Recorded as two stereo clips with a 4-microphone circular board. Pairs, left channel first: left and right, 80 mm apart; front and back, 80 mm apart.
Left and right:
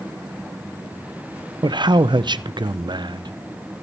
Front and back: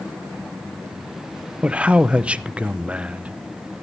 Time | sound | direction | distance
1.6 | a man speaking | 110° right | 0.6 m